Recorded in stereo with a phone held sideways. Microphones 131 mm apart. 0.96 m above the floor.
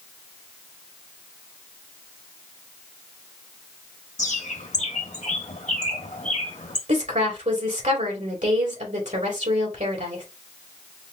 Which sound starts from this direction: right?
A woman speaking, at 6.9 s.